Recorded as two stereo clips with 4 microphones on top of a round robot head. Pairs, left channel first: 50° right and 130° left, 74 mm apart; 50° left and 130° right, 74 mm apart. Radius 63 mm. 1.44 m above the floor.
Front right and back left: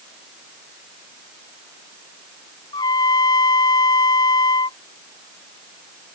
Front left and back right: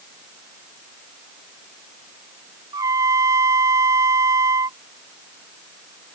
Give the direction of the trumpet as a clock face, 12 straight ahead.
3 o'clock.